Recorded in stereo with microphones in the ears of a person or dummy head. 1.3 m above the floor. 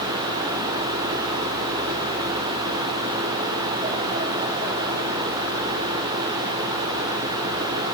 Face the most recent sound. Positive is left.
No sound to turn to.